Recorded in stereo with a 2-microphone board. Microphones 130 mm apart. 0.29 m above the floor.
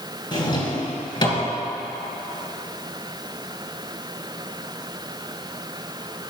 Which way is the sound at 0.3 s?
35° left (ahead or behind).